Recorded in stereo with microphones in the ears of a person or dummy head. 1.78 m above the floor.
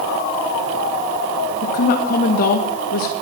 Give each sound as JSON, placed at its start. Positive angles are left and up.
{"t": 1.6, "sound": "a woman speaking", "side_deg": 50, "distance_m": 2.0}